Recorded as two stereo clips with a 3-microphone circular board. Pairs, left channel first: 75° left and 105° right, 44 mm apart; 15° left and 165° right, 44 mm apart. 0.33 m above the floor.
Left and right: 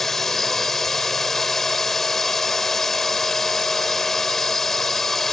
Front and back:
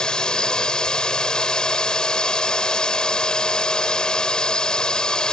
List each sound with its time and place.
0.0 s a drone: 5° left